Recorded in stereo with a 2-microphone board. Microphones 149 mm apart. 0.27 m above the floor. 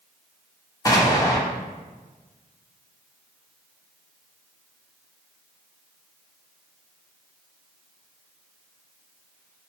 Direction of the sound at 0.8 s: 25° left (ahead or behind).